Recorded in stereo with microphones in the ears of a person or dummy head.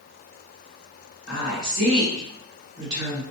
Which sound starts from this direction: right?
A woman speaking, at 1.3 s.